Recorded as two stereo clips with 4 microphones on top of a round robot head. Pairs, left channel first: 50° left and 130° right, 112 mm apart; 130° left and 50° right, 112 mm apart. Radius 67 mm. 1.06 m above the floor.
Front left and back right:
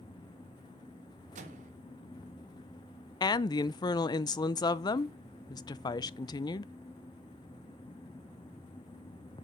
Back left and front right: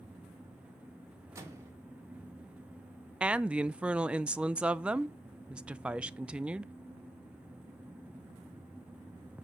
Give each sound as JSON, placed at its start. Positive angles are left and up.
{"t": 1.4, "sound": "a microwave", "azimuth_deg": -115, "distance_m": 1.8}
{"t": 3.2, "sound": "a woman speaking", "azimuth_deg": 25, "distance_m": 0.6}